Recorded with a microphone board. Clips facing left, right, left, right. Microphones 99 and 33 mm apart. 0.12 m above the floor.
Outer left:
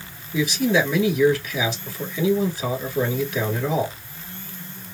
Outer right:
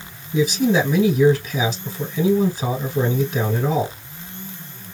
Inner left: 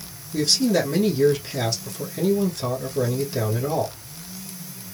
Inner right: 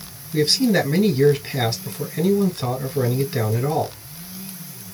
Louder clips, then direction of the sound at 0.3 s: Outer right 3 dB, inner right 2 dB; 40° right (ahead or behind).